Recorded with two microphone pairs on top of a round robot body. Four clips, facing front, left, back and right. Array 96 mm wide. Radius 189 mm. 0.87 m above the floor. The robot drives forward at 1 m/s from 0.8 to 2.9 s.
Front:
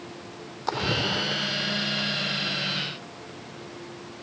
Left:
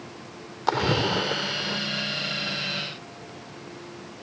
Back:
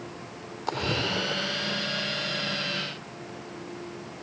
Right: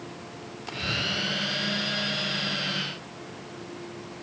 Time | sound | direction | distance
0.7 | a splash | 90° left | ?